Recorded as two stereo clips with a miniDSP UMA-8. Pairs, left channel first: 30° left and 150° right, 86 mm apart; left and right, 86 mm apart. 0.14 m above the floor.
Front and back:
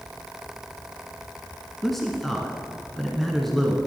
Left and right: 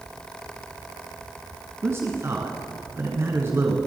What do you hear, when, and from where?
1.8 s a man speaking: 55° right, 1.7 m